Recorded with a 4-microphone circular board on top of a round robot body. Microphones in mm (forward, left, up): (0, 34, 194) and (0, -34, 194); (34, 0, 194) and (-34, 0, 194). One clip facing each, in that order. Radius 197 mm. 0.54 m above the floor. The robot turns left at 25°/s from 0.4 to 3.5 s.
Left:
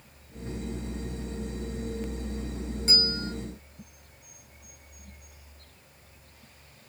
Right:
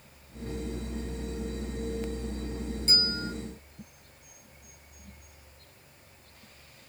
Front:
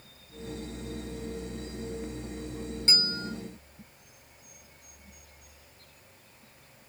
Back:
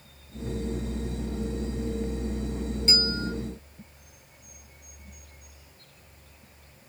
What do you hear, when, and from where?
2.9 s a bell: 60° left, 4.5 m; by 3.3 s 45° left, 4.5 m